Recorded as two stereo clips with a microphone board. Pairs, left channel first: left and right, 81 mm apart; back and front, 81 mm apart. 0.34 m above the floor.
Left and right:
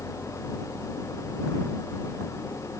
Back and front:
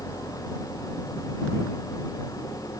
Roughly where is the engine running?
Behind left.